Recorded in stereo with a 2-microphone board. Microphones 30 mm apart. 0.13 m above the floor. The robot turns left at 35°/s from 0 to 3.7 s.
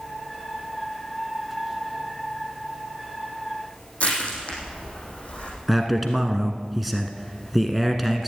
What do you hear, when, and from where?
4.0 s crushing: 40° left (ahead or behind), 5.5 m
5.7 s a man speaking: 5° right (ahead or behind), 1.3 m